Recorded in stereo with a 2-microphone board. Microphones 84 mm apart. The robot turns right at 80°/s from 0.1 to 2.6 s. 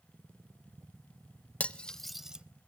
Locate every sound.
1.6 s cutlery clinking: 15° left (ahead or behind), 0.5 m; by 2.5 s 10° right (ahead or behind), 0.5 m